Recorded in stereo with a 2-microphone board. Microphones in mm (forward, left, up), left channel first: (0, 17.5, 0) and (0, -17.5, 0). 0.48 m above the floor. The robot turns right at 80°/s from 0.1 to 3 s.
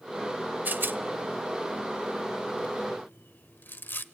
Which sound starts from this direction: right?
A rattle, at 0.7 s.